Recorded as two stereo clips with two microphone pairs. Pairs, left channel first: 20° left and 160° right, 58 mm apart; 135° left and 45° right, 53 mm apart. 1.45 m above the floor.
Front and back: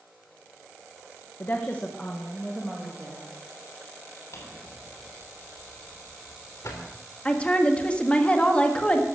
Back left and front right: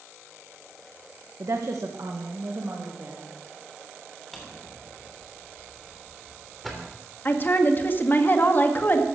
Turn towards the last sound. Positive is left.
turn(degrees=90)